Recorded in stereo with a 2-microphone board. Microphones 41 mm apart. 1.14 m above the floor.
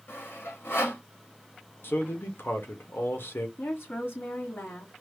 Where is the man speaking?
60° left (ahead or behind), 1.1 m.